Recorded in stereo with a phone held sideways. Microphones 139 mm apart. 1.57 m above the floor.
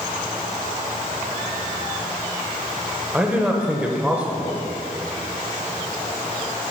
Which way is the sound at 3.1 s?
10° right (ahead or behind).